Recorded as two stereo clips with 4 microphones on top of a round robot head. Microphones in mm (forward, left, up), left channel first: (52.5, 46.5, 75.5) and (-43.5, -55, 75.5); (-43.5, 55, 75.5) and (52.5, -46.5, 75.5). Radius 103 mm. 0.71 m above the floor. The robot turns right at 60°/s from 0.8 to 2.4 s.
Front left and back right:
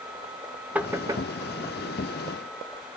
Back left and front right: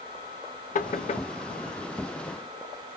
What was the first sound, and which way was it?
Knocking, 145° left.